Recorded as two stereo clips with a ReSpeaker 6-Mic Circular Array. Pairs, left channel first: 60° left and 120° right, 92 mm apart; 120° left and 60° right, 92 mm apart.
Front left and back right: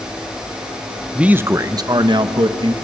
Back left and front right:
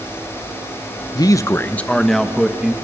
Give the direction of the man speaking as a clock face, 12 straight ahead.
7 o'clock.